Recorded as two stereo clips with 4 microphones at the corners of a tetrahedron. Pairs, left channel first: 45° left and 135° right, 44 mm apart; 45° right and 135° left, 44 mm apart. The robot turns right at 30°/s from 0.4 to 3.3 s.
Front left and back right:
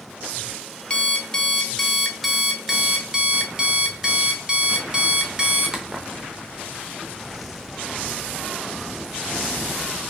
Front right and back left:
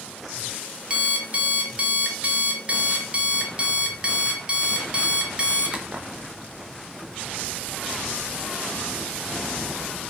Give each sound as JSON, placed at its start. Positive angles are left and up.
{"t": 0.9, "sound": "an alarm clock", "azimuth_deg": 100, "distance_m": 0.5}